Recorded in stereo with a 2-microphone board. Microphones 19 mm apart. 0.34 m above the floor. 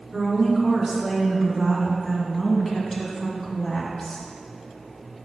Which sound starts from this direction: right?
A woman speaking, at 0.1 s.